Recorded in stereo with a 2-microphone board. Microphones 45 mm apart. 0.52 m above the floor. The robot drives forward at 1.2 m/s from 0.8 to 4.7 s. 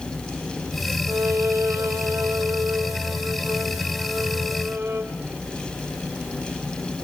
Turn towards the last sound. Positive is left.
turn(degrees=-40)  # may be behind; listen again after turning